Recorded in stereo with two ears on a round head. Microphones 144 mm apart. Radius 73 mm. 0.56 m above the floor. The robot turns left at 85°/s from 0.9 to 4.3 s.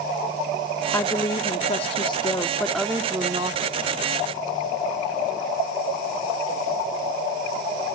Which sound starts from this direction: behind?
A woman speaking, at 0.9 s.